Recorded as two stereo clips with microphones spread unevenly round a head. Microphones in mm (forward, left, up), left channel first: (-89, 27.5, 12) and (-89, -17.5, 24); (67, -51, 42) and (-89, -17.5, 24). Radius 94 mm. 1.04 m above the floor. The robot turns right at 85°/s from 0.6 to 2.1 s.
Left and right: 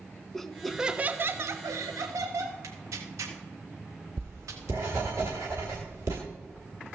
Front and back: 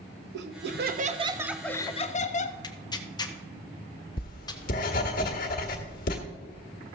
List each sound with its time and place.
0.3 s laughter: 175° left, 1.0 m; by 2.5 s 60° right, 1.0 m
2.6 s tearing paper: 80° right, 1.0 m
4.2 s writing: 40° right, 1.5 m